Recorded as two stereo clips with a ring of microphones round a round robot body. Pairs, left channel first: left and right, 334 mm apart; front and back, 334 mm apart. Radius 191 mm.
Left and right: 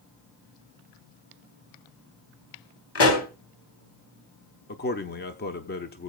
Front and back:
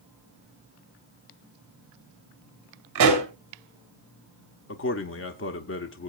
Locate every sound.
3.0 s a pop: 135° left, 3.5 m
4.7 s a man speaking: 40° left, 0.9 m